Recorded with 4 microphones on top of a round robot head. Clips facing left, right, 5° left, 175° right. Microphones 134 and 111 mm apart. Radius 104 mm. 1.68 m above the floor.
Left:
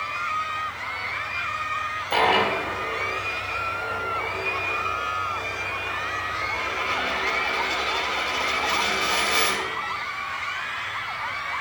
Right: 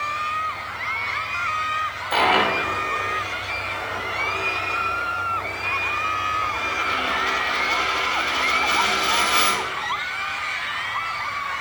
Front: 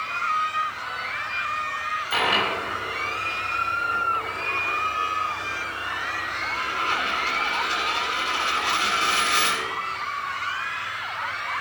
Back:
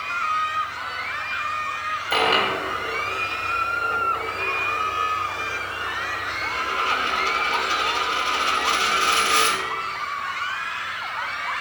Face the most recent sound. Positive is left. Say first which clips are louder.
# right 1 dB, back 4 dB
turn(degrees=155)